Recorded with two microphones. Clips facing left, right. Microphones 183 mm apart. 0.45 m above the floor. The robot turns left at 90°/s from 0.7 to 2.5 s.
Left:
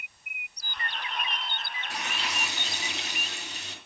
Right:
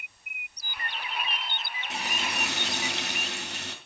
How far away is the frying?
About 3 m.